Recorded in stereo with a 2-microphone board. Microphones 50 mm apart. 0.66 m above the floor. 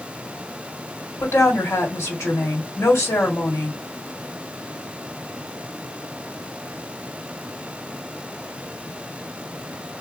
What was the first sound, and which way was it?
A woman speaking, 70° left (ahead or behind).